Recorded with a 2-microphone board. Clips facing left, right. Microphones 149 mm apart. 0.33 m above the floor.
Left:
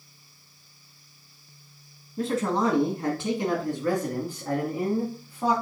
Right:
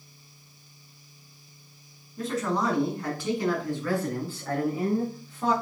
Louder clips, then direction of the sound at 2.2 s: Left 3 dB; 30° left (ahead or behind).